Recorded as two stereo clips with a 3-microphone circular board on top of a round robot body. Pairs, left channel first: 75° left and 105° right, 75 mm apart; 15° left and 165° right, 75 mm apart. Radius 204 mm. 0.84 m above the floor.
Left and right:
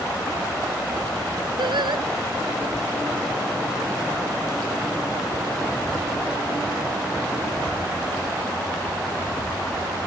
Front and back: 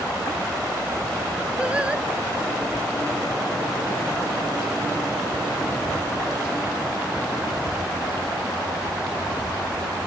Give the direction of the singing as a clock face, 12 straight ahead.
3 o'clock.